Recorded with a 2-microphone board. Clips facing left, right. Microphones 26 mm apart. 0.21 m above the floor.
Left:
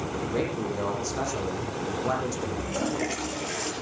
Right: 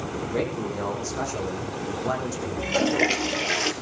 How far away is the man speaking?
About 9 m.